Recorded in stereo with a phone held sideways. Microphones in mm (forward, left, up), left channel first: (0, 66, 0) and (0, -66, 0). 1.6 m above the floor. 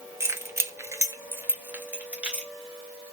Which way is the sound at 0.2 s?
20° right (ahead or behind).